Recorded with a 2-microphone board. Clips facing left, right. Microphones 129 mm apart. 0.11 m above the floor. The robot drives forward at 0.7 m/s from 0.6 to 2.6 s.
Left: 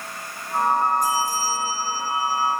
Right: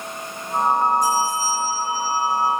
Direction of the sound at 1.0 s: 50° left (ahead or behind).